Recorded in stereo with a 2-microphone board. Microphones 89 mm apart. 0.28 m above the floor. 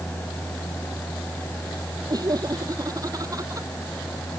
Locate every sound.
2.1 s laughter: 45° right (ahead or behind); by 3.7 s 40° right (ahead or behind)